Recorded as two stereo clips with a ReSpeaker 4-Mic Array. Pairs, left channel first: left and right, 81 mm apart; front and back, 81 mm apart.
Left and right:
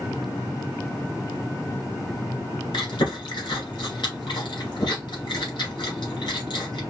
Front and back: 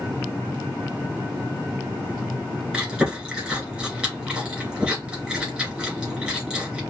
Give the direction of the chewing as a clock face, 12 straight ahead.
8 o'clock.